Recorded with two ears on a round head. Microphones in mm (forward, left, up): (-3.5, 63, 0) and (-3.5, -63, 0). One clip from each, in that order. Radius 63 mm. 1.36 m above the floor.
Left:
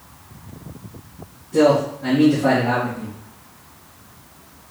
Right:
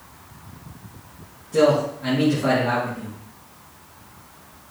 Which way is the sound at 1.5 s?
55° right (ahead or behind).